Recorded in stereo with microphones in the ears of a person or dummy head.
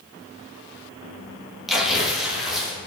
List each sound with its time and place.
1.7 s tearing paper: centre (ahead or behind), 0.6 m